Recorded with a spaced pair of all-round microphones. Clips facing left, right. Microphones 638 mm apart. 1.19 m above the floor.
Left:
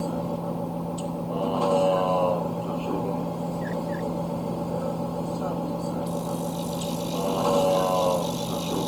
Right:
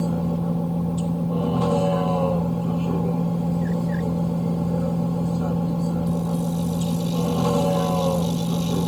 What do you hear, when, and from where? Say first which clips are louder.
0.0 s a vehicle: right 4 dB; 45° right (ahead or behind)